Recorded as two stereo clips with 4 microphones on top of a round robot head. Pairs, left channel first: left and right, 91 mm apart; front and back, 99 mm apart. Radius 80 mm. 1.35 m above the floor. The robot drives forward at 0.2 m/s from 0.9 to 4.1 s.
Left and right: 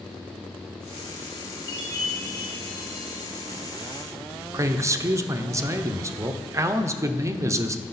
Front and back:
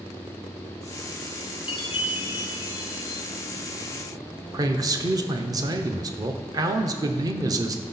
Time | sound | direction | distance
1.7 | a chime | 35° left | 1.4 m
4.5 | a man speaking | 140° right | 0.7 m